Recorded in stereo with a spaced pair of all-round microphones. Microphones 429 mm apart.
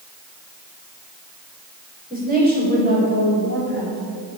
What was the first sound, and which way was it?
A woman speaking, 20° right (ahead or behind).